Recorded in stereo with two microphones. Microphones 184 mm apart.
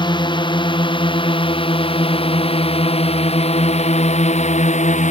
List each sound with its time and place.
0.0 s a drone: 25° left (ahead or behind); by 5.1 s 40° left (ahead or behind)